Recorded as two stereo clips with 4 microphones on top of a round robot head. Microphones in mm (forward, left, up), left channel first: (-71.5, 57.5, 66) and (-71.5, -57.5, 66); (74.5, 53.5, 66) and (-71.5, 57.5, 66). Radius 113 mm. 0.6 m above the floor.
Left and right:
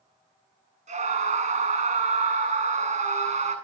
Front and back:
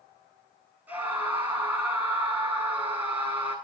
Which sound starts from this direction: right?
A scream, at 0.9 s.